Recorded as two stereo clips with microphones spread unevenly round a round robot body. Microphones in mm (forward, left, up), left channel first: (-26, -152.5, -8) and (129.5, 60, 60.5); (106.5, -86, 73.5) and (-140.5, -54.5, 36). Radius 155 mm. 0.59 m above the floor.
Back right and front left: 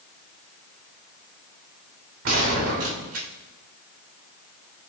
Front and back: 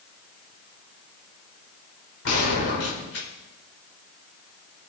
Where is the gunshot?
20° left, 3 m.